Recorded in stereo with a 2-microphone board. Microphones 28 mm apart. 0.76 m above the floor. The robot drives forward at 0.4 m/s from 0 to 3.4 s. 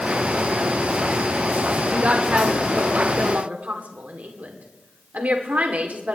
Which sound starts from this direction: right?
A woman speaking, at 1.9 s.